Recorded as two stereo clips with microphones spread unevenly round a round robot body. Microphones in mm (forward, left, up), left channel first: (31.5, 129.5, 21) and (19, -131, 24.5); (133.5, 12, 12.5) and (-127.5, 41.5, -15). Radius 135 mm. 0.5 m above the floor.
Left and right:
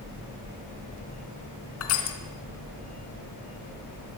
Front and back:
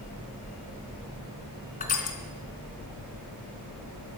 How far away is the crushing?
About 3.5 m.